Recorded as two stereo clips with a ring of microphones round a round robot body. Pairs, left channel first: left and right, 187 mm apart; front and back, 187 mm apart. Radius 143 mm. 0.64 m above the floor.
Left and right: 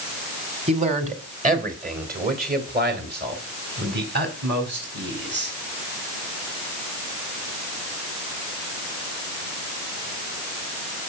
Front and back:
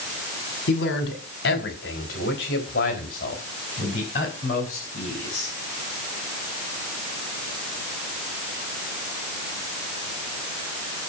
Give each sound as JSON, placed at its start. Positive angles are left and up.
{"t": 0.7, "sound": "a man speaking", "azimuth_deg": -35, "distance_m": 2.5}